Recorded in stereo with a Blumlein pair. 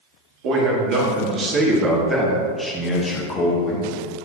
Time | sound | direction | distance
0.4 | a man speaking | 40° right | 3 m